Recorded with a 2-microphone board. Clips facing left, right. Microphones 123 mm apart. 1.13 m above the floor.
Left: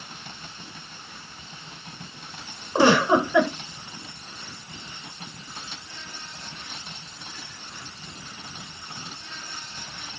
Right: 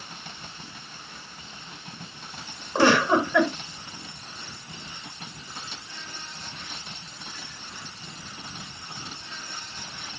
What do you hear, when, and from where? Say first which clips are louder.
2.8 s a giggle: left 2 dB; 15° left (ahead or behind), 2.5 m